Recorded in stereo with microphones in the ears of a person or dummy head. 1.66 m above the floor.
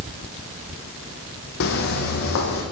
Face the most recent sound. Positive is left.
turn(degrees=65)  # may be behind; listen again after turning